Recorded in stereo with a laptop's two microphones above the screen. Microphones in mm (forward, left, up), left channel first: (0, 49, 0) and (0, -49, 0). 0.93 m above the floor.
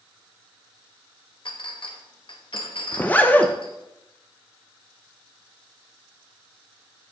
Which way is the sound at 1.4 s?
60° left (ahead or behind).